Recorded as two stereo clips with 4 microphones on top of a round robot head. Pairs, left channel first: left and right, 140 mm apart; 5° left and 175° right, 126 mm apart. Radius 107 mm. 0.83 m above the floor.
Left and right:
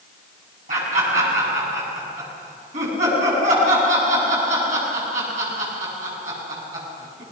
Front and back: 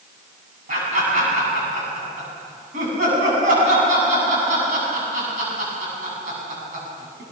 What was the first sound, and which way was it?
Laughter, 140° right.